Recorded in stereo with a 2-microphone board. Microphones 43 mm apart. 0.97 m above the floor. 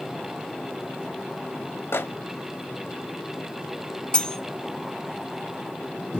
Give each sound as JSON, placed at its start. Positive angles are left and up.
{"t": 1.9, "sound": "a microwave", "side_deg": 70, "distance_m": 0.6}
{"t": 4.1, "sound": "cutlery clinking", "side_deg": 20, "distance_m": 0.6}